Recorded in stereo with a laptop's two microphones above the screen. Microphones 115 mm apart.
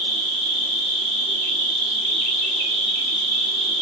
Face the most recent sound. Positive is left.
turn(degrees=-50)  # may be behind; listen again after turning